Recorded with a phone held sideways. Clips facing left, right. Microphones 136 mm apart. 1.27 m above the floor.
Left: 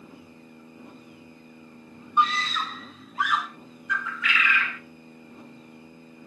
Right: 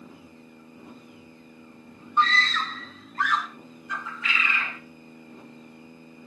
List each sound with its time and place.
2.2 s a scream: 15° left (ahead or behind), 1.8 m; by 3.5 s 5° left (ahead or behind), 3 m
3.9 s a bird: 30° right (ahead or behind), 1.0 m